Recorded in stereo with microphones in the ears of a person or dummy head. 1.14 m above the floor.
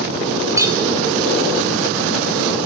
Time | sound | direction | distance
0.6 | a clink | 15° right (ahead or behind) | 2.5 m